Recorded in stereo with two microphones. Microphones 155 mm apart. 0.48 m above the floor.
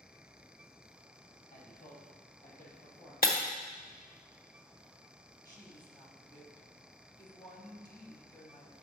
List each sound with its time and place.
1.5 s a man speaking: 70° left (ahead or behind), 2.5 m; by 3.1 s 45° left (ahead or behind), 2 m
3.2 s breaking glass: 65° left (ahead or behind), 0.8 m
5.5 s a woman speaking: 25° left (ahead or behind), 1.4 m